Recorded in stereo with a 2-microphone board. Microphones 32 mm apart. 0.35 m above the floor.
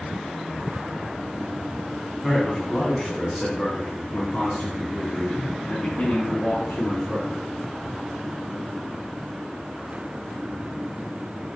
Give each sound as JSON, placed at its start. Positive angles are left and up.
{"t": 2.2, "sound": "a man speaking", "side_deg": 10, "distance_m": 2.5}